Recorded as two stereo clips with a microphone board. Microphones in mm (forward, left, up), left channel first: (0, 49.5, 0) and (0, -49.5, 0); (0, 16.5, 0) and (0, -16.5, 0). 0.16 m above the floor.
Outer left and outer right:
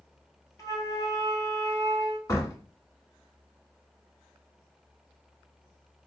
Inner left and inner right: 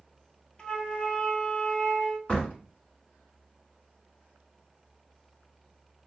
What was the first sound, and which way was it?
A flute, 35° left (ahead or behind).